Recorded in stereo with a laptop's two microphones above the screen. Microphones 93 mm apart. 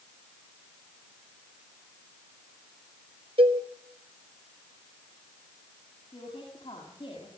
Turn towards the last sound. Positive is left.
turn(degrees=70)  # may be behind; listen again after turning